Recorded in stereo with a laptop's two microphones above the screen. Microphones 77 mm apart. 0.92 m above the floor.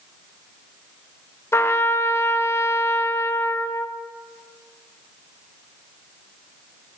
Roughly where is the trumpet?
Left.